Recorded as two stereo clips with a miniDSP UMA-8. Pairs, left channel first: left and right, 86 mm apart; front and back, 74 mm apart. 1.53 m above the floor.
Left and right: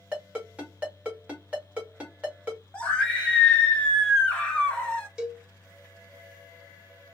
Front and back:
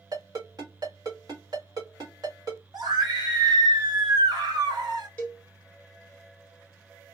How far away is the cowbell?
About 0.8 m.